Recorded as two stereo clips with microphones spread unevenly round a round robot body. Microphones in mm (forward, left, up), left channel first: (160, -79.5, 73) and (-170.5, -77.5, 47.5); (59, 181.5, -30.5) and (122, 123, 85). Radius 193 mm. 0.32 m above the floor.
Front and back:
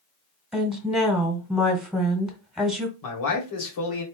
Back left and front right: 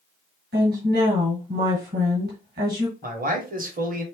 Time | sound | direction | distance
0.5 | a woman speaking | 95° right | 1.7 m
3.0 | a man speaking | 10° right | 1.8 m